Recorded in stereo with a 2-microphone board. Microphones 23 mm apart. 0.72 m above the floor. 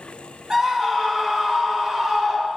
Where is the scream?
20° right (ahead or behind), 1.0 m.